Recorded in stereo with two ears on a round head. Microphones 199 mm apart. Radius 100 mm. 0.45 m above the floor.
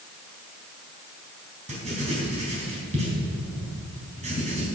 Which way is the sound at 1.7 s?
30° right (ahead or behind).